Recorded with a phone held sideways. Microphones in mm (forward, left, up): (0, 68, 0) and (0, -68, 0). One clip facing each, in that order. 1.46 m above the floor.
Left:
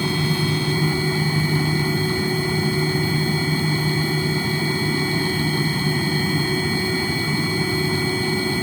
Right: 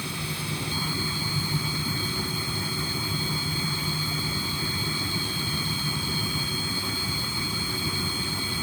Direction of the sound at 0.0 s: 80° left.